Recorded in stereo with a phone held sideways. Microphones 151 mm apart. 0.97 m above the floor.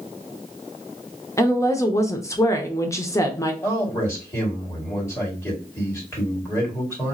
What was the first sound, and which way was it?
A woman speaking, 20° left (ahead or behind).